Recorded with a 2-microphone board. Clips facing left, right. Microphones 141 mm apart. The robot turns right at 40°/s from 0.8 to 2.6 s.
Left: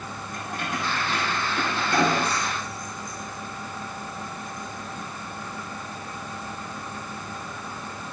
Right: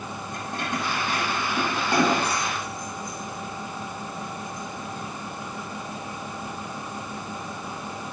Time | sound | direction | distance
0.3 | keys jangling | 30° right (ahead or behind) | 6 m